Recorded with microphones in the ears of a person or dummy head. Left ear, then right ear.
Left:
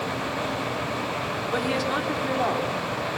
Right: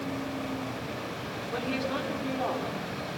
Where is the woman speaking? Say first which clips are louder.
Left 5 dB; 85° left, 3.5 m.